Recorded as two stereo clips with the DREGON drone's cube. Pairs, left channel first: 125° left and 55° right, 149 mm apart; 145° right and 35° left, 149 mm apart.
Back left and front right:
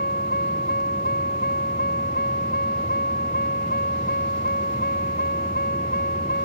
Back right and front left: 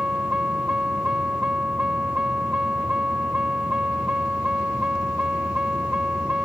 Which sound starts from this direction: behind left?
A vehicle, at 0.0 s.